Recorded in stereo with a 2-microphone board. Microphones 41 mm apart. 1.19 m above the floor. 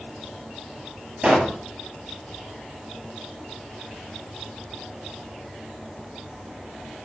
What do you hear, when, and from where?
1.2 s a pop: 30° right (ahead or behind), 8 m